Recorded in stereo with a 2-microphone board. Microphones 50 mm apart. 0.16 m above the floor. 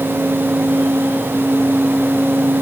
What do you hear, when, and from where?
Only background noise.